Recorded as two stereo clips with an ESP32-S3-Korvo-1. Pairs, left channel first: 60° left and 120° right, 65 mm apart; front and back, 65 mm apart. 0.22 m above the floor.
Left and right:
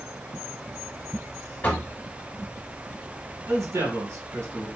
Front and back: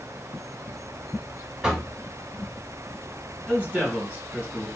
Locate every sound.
1.6 s knocking: 110° left, 0.9 m
3.5 s a man speaking: 125° right, 1.9 m